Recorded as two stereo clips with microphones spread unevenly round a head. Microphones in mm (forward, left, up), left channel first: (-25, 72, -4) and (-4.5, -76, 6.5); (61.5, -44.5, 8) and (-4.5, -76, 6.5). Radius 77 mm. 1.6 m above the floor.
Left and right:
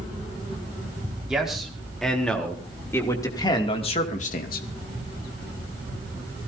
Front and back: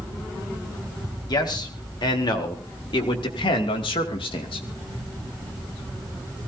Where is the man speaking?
5° left, 4.5 m; by 4.7 s 65° left, 2 m.